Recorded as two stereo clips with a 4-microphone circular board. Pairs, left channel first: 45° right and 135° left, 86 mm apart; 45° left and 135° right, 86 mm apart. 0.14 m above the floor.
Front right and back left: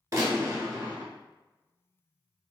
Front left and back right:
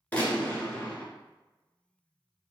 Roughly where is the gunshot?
Left.